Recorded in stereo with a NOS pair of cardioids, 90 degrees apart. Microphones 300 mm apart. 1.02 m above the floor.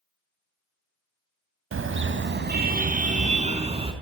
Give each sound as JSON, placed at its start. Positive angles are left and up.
{"t": 1.7, "sound": "a car horn", "azimuth_deg": -45, "distance_m": 3.5}